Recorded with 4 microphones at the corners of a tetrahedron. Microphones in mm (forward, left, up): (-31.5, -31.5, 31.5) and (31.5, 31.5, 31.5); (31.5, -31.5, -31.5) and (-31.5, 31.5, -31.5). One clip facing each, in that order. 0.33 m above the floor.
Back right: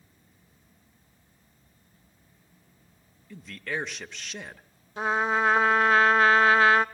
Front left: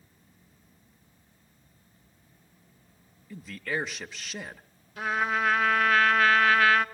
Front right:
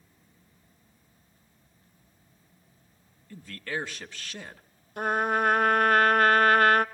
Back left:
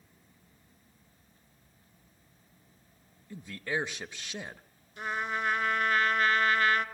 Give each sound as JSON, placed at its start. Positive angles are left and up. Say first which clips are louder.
{"t": 3.3, "sound": "a man speaking", "louder": "front left 1 dB, back left 1 dB", "azimuth_deg": 130, "distance_m": 0.9}
{"t": 5.0, "sound": "a trumpet", "louder": "back right 3 dB, front right 8 dB", "azimuth_deg": -75, "distance_m": 0.5}